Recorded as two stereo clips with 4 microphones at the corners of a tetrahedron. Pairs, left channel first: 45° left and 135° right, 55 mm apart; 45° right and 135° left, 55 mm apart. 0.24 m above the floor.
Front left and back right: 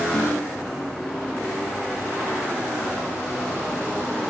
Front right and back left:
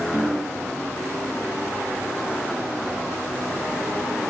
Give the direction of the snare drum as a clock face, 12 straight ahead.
9 o'clock.